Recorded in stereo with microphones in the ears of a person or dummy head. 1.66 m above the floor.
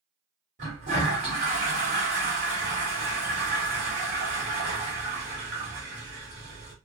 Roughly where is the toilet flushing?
Right.